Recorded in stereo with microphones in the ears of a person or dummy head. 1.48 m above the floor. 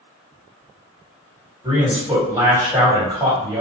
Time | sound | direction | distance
1.6 | a man speaking | 15° right (ahead or behind) | 1.7 m